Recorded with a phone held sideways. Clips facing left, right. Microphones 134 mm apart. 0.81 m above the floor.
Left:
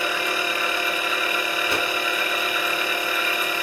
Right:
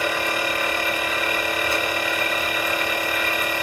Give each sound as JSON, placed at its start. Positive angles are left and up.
{"t": 0.0, "sound": "a machine running", "side_deg": -50, "distance_m": 1.4}
{"t": 1.7, "sound": "a whoosh", "side_deg": 75, "distance_m": 1.4}